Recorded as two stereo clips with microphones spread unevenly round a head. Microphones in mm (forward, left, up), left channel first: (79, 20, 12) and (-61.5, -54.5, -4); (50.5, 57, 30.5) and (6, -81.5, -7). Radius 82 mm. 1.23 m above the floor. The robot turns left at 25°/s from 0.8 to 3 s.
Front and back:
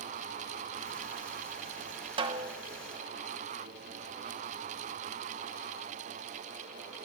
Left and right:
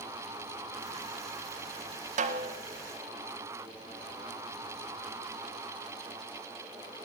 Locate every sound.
2.2 s a snare drum: 100° right, 0.6 m; by 2.6 s 110° right, 0.6 m